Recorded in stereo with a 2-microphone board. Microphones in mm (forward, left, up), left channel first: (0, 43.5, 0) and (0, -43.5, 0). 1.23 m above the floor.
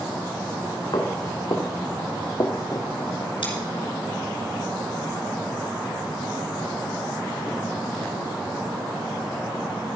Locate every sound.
0.9 s footsteps: 65° left (ahead or behind), 3.5 m; by 2.9 s 35° left (ahead or behind), 1.5 m
3.4 s scissors: 90° left, 5 m